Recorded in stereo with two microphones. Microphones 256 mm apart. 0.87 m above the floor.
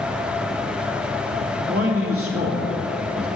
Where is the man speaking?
60° right (ahead or behind), 2.5 m.